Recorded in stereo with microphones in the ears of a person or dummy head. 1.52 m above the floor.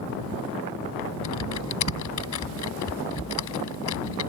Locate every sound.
1.2 s typing on a keyboard: 90° left